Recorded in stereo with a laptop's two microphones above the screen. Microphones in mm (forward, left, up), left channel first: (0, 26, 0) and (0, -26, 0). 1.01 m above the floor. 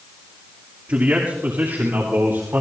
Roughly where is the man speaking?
Right.